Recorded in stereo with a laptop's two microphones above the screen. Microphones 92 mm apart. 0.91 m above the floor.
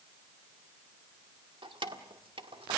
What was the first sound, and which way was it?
Keys jangling, 65° right (ahead or behind).